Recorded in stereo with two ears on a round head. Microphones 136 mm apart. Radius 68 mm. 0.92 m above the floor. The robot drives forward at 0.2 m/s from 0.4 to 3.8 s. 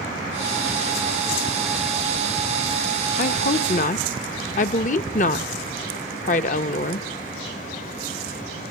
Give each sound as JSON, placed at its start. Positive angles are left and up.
{"t": 3.2, "sound": "a woman speaking", "side_deg": 50, "distance_m": 1.0}